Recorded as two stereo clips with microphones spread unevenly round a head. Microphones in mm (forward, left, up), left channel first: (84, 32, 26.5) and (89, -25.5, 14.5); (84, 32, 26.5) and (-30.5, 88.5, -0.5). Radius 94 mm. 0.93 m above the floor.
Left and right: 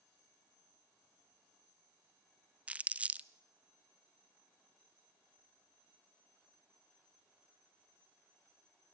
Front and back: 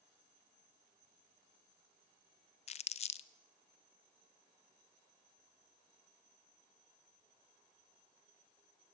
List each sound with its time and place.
2.7 s crumpling: 50° right, 0.7 m